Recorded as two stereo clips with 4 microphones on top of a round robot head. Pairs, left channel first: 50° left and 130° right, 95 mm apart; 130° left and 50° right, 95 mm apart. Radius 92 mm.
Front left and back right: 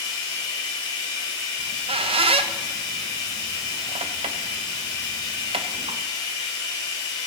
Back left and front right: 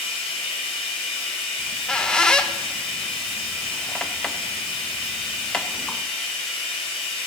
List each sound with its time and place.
0.0 s running water: 100° left, 2.5 m
1.6 s a squeak: 150° right, 0.6 m